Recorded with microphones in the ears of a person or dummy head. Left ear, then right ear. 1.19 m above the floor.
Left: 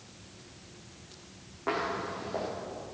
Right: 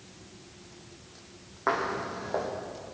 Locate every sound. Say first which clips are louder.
1.7 s footsteps: right 3 dB; 50° right (ahead or behind), 4 m